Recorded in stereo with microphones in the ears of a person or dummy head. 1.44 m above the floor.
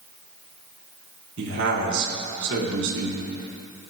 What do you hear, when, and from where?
1.4 s a man speaking: 75° right (ahead or behind), 4 m